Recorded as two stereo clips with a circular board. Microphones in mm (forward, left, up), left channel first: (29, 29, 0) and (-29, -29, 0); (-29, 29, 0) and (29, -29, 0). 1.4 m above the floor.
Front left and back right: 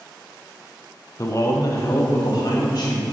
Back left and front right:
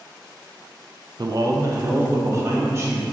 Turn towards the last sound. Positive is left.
turn(degrees=10)